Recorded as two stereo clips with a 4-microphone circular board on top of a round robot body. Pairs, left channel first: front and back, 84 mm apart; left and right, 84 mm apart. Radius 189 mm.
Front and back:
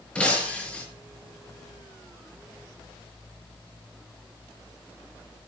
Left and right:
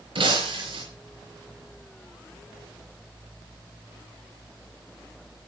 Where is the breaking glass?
80° right, 6 m.